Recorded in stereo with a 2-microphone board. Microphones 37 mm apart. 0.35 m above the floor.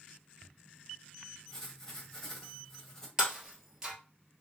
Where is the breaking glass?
10° right (ahead or behind), 1.5 m.